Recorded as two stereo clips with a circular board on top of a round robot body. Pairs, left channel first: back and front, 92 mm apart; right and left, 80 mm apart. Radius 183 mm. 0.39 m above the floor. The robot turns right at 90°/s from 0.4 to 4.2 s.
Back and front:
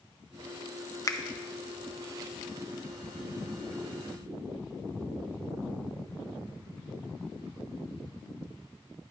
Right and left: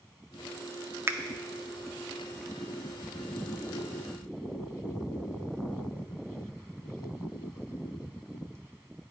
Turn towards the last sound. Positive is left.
turn(degrees=60)